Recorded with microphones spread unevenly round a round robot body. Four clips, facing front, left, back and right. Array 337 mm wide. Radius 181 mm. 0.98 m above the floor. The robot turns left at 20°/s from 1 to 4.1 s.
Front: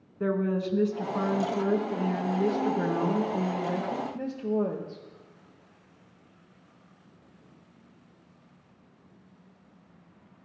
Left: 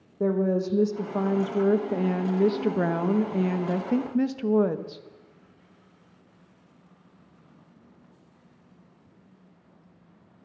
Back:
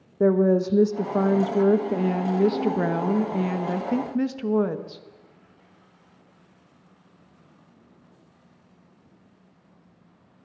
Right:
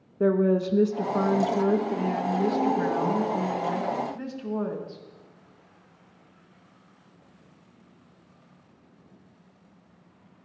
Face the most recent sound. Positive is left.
turn(degrees=145)